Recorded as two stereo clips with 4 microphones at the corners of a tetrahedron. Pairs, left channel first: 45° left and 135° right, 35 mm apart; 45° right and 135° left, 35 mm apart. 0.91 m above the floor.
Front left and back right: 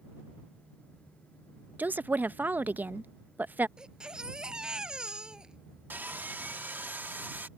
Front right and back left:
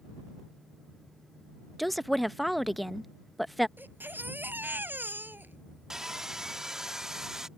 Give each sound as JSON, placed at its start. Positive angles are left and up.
{"t": 1.8, "sound": "a woman speaking", "azimuth_deg": -135}
{"t": 3.8, "sound": "a baby crying", "azimuth_deg": 160}
{"t": 5.9, "sound": "sawing", "azimuth_deg": -150}